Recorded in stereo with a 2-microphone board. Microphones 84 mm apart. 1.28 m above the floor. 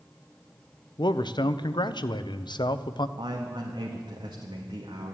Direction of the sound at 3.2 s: 75° right (ahead or behind).